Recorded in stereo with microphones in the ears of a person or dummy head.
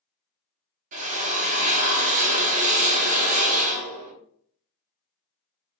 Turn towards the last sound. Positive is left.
turn(degrees=-40)  # may be behind; listen again after turning